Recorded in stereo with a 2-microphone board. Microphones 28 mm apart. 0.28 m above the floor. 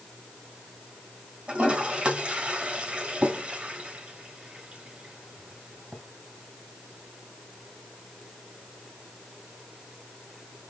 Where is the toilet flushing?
50° right (ahead or behind), 1.9 m.